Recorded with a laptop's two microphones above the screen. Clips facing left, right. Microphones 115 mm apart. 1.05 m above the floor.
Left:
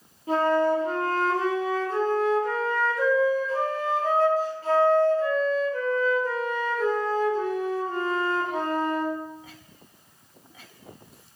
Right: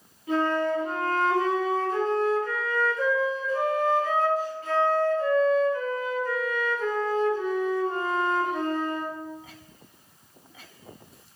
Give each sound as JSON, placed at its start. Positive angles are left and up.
{"t": 0.3, "sound": "a flute", "side_deg": 35, "distance_m": 0.7}